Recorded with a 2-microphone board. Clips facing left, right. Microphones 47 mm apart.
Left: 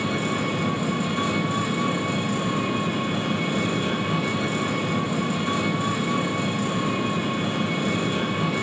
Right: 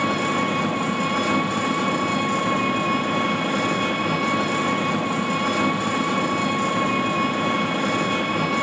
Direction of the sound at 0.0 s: 65° right (ahead or behind).